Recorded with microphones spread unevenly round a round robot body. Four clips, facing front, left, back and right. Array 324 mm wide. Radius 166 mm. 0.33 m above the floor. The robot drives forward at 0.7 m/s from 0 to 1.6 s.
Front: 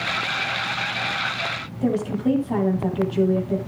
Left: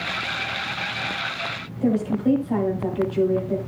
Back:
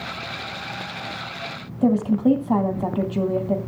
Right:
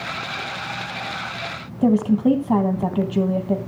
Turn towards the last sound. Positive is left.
turn(degrees=-110)